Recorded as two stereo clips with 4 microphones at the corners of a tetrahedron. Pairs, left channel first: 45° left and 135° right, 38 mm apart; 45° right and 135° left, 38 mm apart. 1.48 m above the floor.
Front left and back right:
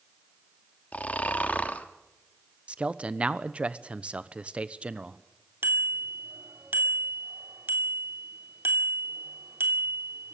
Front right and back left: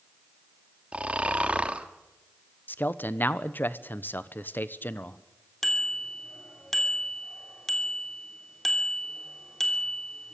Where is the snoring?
85° left, 1.4 m.